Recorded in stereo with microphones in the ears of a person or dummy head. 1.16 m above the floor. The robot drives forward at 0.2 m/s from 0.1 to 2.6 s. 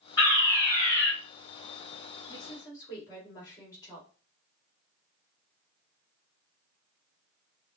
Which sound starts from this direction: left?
A woman speaking, at 2.3 s.